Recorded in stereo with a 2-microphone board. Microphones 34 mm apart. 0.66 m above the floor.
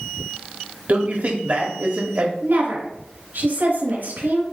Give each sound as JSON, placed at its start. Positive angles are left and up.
{"t": 0.9, "sound": "a man speaking", "side_deg": -50, "distance_m": 1.1}
{"t": 2.4, "sound": "a woman speaking", "side_deg": -75, "distance_m": 3.0}